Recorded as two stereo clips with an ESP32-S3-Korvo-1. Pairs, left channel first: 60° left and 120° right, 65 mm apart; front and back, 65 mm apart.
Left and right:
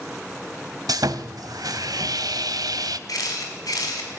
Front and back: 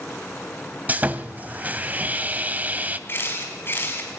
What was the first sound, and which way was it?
Sawing, 120° right.